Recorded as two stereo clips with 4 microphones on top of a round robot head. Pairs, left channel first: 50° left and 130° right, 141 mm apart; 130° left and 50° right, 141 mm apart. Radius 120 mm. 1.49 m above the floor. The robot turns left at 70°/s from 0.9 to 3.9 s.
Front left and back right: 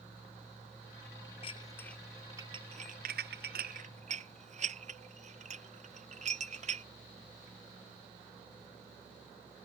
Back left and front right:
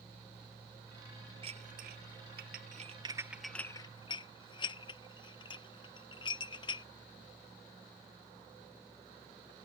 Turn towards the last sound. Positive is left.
turn(degrees=-170)